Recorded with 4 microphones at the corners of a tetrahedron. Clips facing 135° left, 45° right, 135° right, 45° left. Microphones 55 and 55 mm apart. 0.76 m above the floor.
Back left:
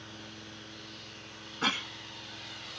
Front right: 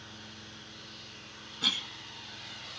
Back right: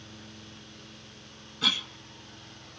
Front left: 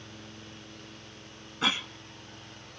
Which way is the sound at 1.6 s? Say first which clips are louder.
Back left 3 dB, front left 1 dB; 95° left.